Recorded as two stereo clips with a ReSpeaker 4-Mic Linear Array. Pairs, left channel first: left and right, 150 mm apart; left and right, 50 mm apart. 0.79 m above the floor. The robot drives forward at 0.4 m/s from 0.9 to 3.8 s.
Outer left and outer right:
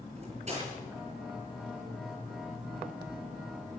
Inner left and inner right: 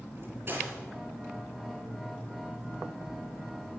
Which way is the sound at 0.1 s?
45° right (ahead or behind).